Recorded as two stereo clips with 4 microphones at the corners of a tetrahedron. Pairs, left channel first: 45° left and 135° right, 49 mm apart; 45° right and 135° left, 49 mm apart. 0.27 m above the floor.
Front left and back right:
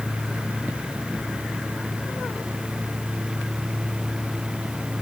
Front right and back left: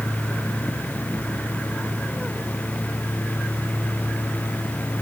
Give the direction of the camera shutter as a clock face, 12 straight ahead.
No camera shutter in this recording.